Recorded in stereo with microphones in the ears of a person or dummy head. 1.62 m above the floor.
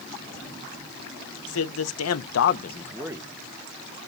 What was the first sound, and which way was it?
A man speaking, 80° left.